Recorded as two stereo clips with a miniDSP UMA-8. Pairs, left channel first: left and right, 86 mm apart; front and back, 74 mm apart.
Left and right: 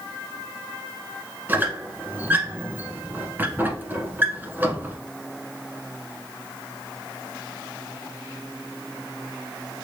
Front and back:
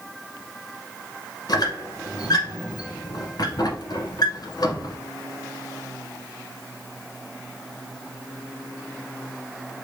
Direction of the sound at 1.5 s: 25° right.